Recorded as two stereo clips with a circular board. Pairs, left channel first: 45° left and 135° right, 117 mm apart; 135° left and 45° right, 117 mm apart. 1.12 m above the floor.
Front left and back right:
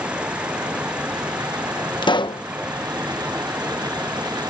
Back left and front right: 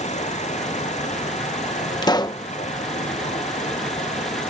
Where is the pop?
85° left.